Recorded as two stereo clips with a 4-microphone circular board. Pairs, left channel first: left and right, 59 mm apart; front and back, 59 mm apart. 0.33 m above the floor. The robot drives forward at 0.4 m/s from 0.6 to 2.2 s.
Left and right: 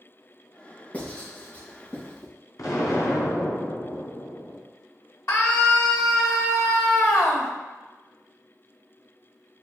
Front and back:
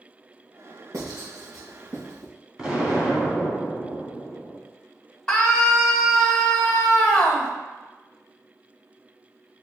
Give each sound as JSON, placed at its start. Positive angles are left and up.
{"t": 0.9, "sound": "writing", "azimuth_deg": 155, "distance_m": 2.5}
{"t": 2.6, "sound": "an explosion", "azimuth_deg": 105, "distance_m": 1.5}
{"t": 5.3, "sound": "a scream", "azimuth_deg": 75, "distance_m": 1.8}